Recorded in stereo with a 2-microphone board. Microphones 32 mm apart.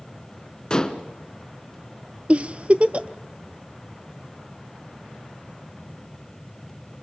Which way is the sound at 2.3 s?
40° right (ahead or behind).